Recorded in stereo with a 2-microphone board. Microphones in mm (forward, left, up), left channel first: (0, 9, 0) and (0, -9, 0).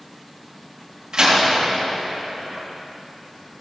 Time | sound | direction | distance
1.1 | a door slam | 55° right (ahead or behind) | 2 m